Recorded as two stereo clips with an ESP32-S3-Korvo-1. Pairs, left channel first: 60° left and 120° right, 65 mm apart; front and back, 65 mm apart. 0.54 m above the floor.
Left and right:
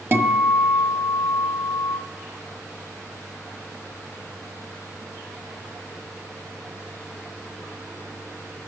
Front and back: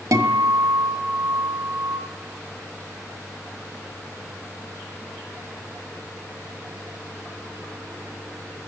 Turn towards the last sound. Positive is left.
turn(degrees=-170)